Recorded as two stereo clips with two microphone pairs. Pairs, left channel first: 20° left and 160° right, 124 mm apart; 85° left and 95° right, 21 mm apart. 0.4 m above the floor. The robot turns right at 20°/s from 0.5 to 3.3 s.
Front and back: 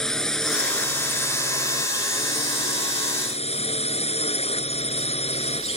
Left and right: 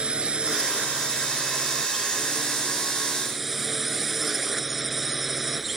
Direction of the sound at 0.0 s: 65° right.